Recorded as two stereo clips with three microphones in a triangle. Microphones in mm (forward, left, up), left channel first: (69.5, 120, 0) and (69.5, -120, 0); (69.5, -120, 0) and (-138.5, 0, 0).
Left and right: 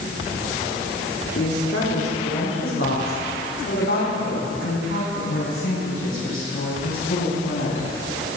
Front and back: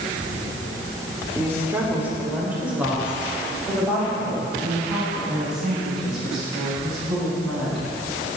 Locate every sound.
1.4 s a woman speaking: 70° left, 3 m; by 7.8 s 60° left, 12.5 m